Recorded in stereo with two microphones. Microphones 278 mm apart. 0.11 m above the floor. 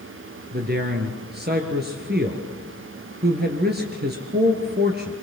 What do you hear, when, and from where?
0.5 s a man speaking: 35° right (ahead or behind), 2.5 m